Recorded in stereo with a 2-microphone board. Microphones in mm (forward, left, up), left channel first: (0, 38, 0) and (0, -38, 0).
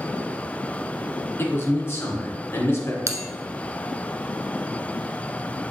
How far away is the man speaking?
About 1.8 m.